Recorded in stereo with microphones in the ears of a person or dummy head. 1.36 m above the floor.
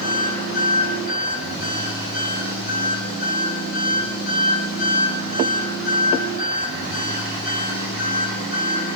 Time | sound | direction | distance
0.0 | an engine running | 60° left (ahead or behind) | 6.5 m